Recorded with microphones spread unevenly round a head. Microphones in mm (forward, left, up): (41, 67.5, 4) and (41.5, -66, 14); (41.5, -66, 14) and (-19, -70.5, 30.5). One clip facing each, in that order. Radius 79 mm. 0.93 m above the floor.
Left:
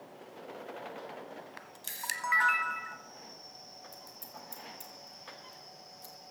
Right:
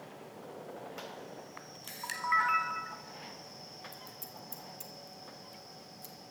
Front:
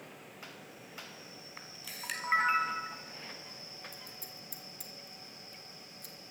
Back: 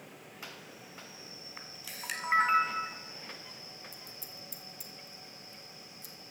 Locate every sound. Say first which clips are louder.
1.6 s a camera shutter: even, back 2 dB; 120° left, 0.9 m
3.9 s scissors: right 1 dB, even; 15° right, 1.7 m